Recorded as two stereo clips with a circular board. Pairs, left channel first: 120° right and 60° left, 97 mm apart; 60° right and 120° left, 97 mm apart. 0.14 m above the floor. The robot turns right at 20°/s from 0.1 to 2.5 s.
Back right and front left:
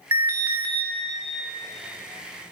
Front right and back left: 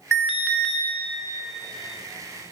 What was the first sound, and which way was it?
An alarm, 30° left.